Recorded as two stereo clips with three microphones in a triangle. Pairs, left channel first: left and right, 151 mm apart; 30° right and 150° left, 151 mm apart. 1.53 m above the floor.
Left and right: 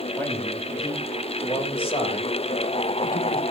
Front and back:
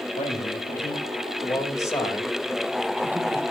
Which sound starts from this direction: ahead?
A man speaking, at 0.2 s.